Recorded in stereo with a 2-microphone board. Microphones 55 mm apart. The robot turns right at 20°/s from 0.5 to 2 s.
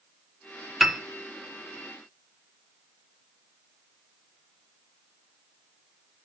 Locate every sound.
0.8 s a piano: 5° right (ahead or behind), 0.6 m; by 1.0 s centre (ahead or behind), 0.6 m